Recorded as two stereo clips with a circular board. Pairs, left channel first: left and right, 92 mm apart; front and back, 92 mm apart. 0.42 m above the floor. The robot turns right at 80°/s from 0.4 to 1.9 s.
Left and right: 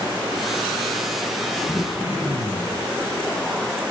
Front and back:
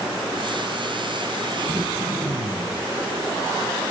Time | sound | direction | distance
1.7 | throat clearing | straight behind | 6.5 m